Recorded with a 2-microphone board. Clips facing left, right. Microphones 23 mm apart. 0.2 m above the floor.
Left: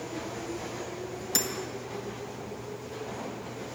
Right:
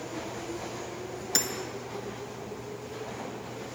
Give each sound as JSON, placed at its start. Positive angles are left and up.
{"t": 1.4, "sound": "hammering", "side_deg": -10, "distance_m": 1.2}